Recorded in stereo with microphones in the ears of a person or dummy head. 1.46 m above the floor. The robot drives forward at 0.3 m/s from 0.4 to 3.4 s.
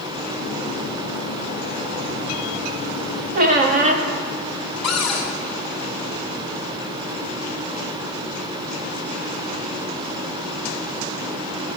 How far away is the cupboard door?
About 1.3 m.